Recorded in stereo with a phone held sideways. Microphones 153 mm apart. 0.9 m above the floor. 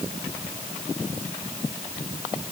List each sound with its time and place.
Only background noise.